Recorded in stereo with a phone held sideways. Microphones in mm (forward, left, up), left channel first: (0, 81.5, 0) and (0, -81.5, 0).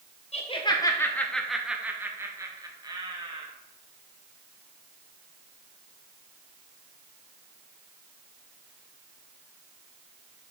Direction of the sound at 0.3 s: 40° left (ahead or behind).